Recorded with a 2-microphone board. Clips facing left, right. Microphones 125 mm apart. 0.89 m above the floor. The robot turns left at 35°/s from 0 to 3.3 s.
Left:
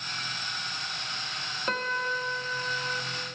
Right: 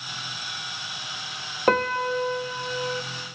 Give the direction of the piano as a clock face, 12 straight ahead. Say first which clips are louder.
Right 10 dB; 3 o'clock.